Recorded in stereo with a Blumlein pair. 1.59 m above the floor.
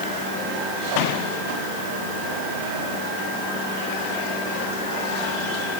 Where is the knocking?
I don't hear knocking.